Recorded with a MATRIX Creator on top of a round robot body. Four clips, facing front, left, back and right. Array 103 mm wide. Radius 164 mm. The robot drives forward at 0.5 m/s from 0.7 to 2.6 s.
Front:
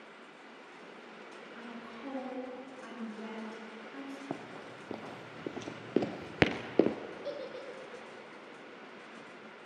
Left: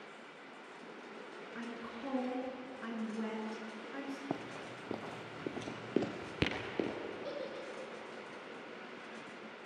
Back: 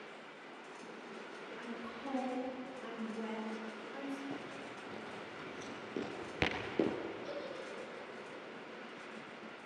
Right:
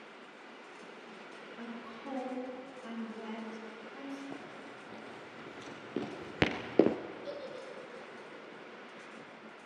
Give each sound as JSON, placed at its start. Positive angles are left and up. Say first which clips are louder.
{"t": 1.6, "sound": "a woman speaking", "louder": "left 1 dB, even", "azimuth_deg": 75, "distance_m": 7.0}
{"t": 4.3, "sound": "running footsteps", "louder": "left 4 dB, front 2 dB", "azimuth_deg": 50, "distance_m": 1.5}
{"t": 7.2, "sound": "a giggle", "louder": "even, front 3 dB", "azimuth_deg": 20, "distance_m": 2.5}